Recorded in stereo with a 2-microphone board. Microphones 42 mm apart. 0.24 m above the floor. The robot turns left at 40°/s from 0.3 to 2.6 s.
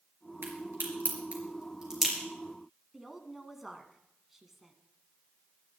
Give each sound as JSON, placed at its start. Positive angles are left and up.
{"t": 0.4, "sound": "a crack", "side_deg": -70, "distance_m": 4.0}
{"t": 2.9, "sound": "a woman speaking", "side_deg": -5, "distance_m": 1.7}